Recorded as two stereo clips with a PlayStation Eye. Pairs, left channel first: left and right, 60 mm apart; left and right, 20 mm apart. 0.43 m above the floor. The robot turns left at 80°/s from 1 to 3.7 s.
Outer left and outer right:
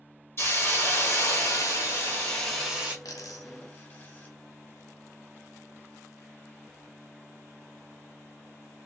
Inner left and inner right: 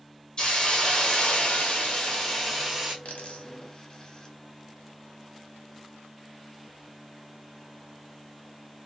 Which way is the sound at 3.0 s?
80° left.